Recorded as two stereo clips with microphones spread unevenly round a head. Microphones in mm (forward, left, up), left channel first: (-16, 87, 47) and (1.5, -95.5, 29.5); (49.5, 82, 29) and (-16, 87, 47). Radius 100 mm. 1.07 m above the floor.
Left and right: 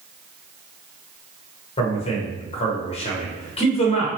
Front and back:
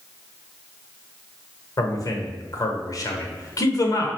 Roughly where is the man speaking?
Ahead left.